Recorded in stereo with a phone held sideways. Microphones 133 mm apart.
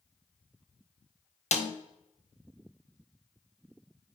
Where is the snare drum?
60° left (ahead or behind), 0.8 m.